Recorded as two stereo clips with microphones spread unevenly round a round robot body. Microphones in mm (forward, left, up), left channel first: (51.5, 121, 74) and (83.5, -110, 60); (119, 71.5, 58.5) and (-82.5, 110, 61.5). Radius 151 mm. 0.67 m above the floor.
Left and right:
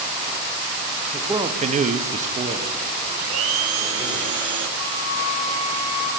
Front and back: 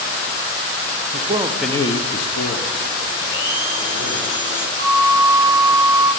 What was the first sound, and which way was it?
A man speaking, 155° right.